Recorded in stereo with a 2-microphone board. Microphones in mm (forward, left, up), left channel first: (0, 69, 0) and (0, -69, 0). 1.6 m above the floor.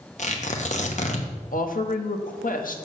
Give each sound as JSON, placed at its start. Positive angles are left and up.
{"t": 0.2, "sound": "tearing paper", "side_deg": 60, "distance_m": 1.0}
{"t": 1.5, "sound": "a woman speaking", "side_deg": 85, "distance_m": 1.0}